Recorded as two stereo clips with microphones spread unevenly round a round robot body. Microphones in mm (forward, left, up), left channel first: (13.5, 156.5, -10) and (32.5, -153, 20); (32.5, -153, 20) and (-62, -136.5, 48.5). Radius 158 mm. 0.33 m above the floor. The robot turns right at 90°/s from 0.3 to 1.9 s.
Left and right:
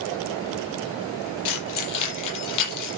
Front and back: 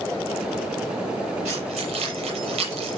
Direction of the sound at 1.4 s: 90° left.